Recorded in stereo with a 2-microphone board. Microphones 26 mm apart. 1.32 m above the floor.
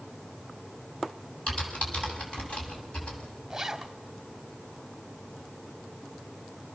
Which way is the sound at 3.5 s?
15° right (ahead or behind).